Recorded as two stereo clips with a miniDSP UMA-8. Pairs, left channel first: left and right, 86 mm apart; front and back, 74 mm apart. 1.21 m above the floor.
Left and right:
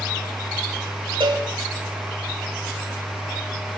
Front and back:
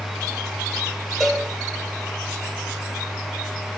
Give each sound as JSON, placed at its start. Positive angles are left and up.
{"t": 1.2, "sound": "a cowbell", "azimuth_deg": -85, "distance_m": 5.5}